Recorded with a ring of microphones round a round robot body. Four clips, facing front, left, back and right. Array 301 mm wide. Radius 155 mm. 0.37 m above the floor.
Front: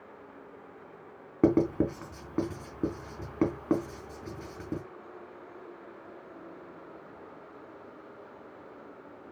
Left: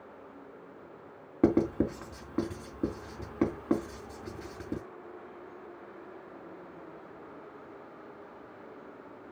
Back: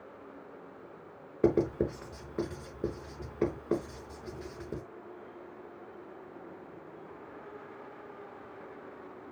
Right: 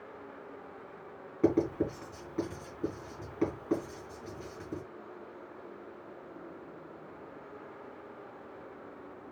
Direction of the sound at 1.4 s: 30° left.